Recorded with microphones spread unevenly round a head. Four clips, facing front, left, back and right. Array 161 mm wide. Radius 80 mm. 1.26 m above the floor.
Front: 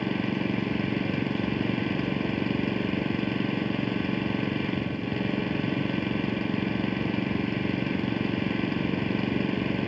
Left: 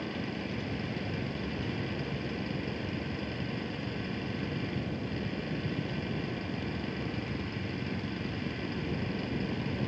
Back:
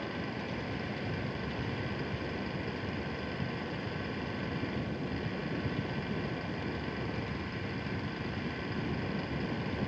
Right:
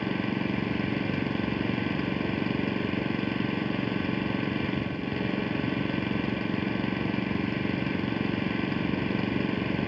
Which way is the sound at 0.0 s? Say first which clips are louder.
Right 7 dB, front 10 dB; 40° right.